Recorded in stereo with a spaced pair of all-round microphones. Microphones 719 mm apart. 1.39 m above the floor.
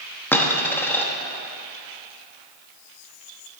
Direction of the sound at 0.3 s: 5° left (ahead or behind).